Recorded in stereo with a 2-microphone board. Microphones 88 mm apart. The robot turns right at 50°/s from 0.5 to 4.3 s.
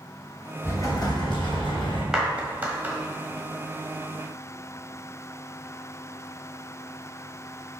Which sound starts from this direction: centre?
A clap, at 2.1 s.